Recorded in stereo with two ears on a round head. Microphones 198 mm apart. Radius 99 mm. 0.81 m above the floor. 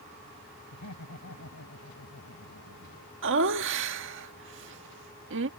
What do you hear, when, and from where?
0.7 s laughter: 85° left; by 3.1 s 65° left (ahead or behind)
3.2 s laughter: 60° right (ahead or behind)